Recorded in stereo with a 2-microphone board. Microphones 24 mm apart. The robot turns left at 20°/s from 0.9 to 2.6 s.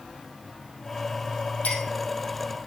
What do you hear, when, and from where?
1.6 s a clink: 75° left (ahead or behind), 4 m; by 1.8 s 80° left, 4 m